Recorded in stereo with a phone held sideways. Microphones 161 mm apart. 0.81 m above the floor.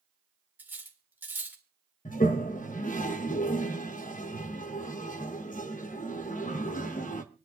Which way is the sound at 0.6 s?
10° right (ahead or behind).